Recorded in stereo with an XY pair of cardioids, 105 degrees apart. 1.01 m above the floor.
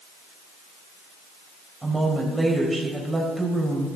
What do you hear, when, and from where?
1.8 s a woman speaking: 20° right, 4 m